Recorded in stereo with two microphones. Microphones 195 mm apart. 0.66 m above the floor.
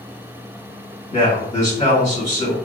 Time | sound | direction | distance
1.1 | a man speaking | 40° left (ahead or behind) | 1.7 m